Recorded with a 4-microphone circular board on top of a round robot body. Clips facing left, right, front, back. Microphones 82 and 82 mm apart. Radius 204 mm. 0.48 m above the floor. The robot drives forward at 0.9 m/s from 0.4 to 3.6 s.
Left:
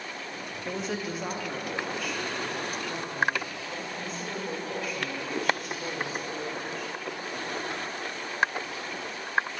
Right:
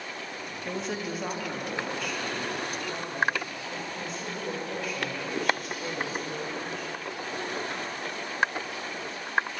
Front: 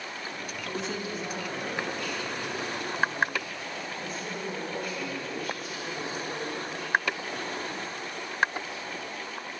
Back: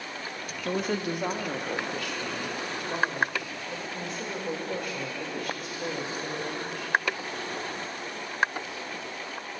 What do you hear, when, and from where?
0.7 s a woman speaking: straight behind, 1.0 m